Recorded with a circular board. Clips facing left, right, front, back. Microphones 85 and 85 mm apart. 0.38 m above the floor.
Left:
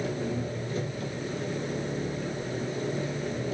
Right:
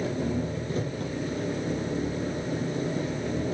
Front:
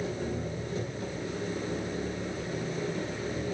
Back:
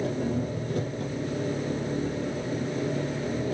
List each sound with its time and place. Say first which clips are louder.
0.0 s an engine running: right 2 dB, back 5 dB; 140° right, 8 m